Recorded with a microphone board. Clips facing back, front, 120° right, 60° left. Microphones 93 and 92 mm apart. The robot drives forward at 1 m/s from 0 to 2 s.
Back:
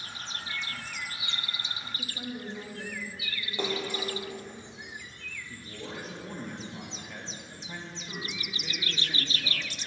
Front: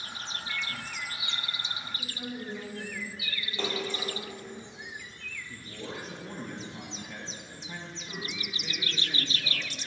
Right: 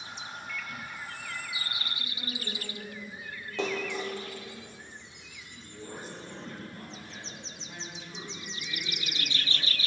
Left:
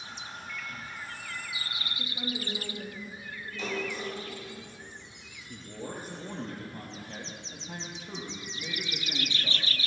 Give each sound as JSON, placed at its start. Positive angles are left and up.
{"t": 0.5, "sound": "a microwave", "azimuth_deg": 125, "distance_m": 1.0}
{"t": 2.0, "sound": "a woman speaking", "azimuth_deg": 120, "distance_m": 4.0}
{"t": 3.6, "sound": "a splash", "azimuth_deg": -105, "distance_m": 3.5}
{"t": 5.5, "sound": "a man speaking", "azimuth_deg": 95, "distance_m": 4.5}